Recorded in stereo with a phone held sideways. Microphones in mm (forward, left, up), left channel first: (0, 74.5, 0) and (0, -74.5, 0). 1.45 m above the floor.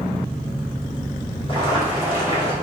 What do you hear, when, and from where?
1.5 s boiling: 35° left (ahead or behind), 3 m